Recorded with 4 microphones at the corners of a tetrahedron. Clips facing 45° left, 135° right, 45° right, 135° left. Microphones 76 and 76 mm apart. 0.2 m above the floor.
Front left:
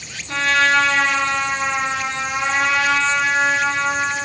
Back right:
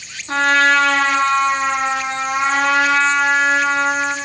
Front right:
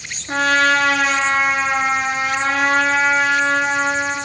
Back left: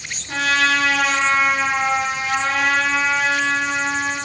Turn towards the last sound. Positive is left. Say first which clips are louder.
# back right 3 dB, front right 3 dB
turn(degrees=-85)